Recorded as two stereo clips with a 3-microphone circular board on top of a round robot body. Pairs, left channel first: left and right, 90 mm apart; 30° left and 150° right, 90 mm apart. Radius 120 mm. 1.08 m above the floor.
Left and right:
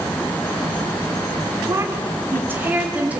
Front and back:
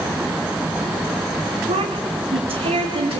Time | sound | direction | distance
1.7 | a woman speaking | 150° right | 3 m